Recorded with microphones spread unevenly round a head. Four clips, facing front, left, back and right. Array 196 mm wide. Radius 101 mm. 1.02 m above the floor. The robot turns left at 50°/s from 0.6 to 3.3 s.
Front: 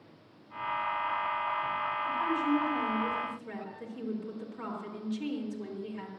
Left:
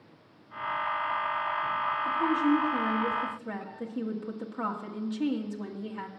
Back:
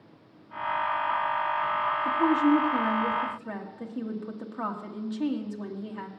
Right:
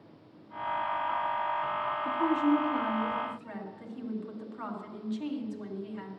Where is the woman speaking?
160° right, 1.8 m; by 6.1 s 140° left, 1.8 m.